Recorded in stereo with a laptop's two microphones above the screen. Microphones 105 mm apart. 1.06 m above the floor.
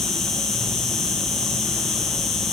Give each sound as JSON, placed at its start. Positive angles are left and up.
{"t": 0.0, "sound": "an insect", "side_deg": 5, "distance_m": 1.0}